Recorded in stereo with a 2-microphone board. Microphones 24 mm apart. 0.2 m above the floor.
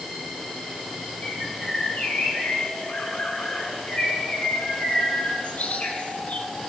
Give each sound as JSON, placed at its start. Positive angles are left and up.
{"t": 1.2, "sound": "a bird", "side_deg": 70, "distance_m": 2.5}